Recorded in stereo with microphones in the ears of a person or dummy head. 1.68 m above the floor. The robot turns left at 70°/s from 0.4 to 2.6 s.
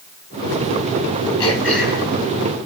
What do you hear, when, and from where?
1.4 s throat clearing: 25° left, 3.5 m; by 2.1 s 20° right, 3.5 m